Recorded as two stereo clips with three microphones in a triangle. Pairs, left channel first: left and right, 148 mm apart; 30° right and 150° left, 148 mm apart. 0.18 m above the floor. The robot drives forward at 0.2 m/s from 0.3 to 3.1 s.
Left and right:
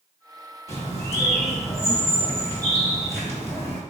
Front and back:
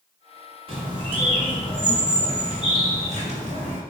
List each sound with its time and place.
0.7 s a bird: 150° left, 1.9 m; by 3.8 s 155° left, 2 m